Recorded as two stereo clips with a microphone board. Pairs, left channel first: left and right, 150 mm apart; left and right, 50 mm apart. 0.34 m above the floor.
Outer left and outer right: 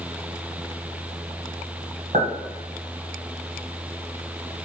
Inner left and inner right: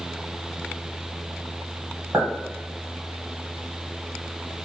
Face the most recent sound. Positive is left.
turn(degrees=-60)  # may be behind; listen again after turning